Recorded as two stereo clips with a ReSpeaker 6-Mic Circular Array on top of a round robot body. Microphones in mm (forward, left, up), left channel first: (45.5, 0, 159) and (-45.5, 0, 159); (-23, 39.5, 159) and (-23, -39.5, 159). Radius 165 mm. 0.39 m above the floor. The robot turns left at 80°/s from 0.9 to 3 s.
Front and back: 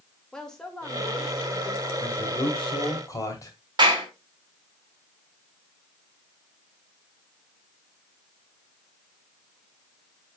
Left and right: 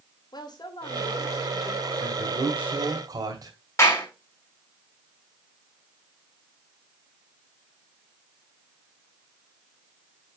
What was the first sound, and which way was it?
A woman speaking, 80° left.